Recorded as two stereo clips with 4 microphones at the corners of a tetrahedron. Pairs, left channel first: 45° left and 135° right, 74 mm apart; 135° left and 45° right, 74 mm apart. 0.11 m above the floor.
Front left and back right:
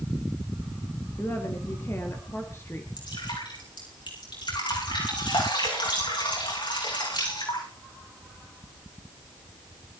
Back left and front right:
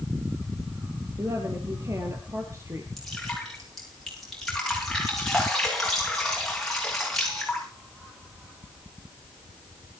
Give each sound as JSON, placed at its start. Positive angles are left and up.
{"t": 1.2, "sound": "a woman speaking", "azimuth_deg": -5, "distance_m": 2.5}
{"t": 3.0, "sound": "dripping", "azimuth_deg": 50, "distance_m": 7.0}